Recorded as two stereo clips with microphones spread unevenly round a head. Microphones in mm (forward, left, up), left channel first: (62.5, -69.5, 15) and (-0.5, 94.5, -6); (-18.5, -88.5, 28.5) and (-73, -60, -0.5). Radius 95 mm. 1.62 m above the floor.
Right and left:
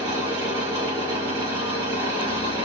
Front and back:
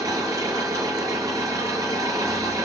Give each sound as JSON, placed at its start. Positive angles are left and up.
{"t": 0.0, "sound": "an engine running", "azimuth_deg": 180, "distance_m": 6.5}